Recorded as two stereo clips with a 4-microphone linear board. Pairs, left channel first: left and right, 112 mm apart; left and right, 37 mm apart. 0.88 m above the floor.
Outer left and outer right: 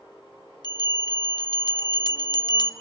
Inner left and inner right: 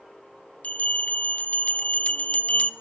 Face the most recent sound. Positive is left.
turn(degrees=40)  # may be behind; listen again after turning